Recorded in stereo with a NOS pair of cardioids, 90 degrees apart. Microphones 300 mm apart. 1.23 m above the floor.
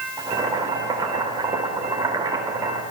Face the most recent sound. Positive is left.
turn(degrees=-15)